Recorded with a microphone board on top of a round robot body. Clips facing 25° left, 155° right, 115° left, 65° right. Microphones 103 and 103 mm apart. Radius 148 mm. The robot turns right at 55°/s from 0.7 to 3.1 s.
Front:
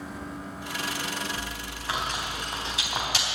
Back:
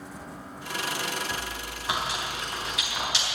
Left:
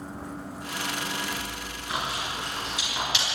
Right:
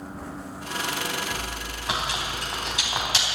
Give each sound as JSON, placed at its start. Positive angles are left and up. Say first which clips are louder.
{"t": 1.3, "sound": "chewing", "louder": "back 1 dB, right 2 dB", "azimuth_deg": -115, "distance_m": 3.5}